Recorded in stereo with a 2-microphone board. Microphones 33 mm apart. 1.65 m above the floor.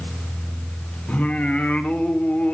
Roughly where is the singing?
Left.